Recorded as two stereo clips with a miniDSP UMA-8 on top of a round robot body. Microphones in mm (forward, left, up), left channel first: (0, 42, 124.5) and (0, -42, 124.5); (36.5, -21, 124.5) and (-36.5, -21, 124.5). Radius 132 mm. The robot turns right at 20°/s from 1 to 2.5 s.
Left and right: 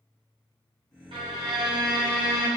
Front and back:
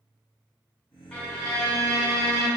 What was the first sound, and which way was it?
A violin, 80° right.